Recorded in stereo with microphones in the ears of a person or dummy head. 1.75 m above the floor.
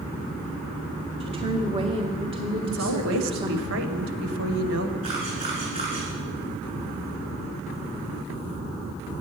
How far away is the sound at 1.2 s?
About 2 m.